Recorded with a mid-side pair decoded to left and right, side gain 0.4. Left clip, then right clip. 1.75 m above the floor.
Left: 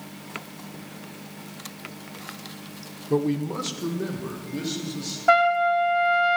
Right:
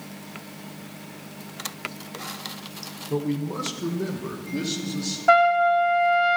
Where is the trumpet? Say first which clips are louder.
Right 2 dB; 5° left, 0.8 m.